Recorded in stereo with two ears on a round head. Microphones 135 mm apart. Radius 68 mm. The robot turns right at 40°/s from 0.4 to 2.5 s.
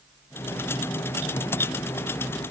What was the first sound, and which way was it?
Only background noise.